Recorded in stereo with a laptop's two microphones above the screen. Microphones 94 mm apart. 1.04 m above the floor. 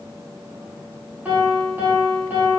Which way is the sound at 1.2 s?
20° right (ahead or behind).